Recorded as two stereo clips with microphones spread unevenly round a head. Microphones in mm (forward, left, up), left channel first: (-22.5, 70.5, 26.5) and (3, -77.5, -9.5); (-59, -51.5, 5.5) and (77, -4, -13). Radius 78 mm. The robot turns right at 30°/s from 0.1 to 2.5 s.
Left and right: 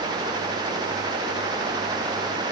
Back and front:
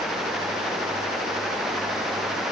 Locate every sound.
Only background noise.